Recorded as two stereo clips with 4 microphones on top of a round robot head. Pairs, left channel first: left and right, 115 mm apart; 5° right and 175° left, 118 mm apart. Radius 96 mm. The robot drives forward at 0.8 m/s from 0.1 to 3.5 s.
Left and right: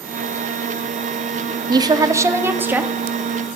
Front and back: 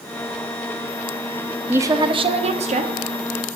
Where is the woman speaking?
120° right, 0.6 m; by 2.9 s 165° right, 1.3 m.